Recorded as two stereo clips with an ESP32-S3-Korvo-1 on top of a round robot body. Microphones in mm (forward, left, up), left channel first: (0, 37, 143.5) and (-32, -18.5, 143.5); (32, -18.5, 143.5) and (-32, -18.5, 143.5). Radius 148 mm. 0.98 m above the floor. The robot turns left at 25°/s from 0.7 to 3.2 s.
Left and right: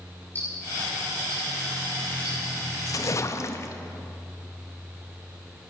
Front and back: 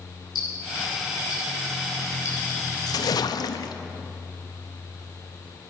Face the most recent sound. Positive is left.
turn(degrees=15)